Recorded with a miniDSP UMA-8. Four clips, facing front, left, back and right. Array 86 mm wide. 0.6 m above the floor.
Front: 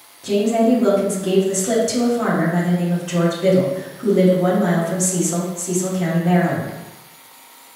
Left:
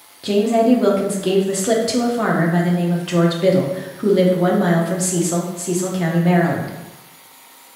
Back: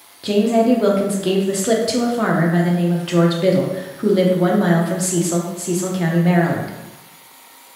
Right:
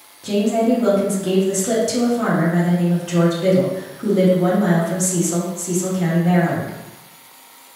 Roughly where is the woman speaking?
Behind left.